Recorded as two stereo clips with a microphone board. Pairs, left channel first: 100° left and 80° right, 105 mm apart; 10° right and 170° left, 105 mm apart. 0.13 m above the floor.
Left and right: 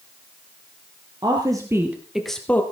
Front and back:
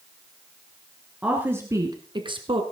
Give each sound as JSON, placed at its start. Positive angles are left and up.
{"t": 1.2, "sound": "a woman speaking", "azimuth_deg": -115, "distance_m": 2.0}